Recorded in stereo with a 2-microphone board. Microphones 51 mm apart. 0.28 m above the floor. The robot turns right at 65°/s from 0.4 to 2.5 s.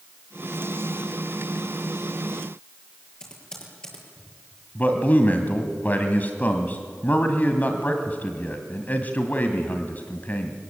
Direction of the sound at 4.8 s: 35° left (ahead or behind).